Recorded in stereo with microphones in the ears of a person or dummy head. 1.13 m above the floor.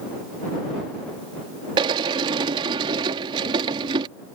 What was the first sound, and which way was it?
A sliding door, 30° right (ahead or behind).